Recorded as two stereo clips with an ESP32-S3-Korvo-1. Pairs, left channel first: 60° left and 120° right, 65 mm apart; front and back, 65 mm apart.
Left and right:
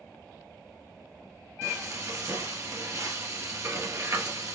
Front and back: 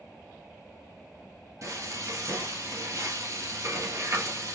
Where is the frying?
155° right, 1.9 m.